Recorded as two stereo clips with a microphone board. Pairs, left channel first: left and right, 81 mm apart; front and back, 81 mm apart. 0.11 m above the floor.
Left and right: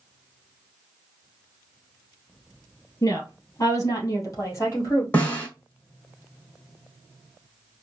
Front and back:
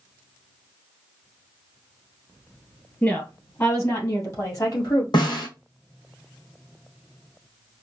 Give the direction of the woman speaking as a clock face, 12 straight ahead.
10 o'clock.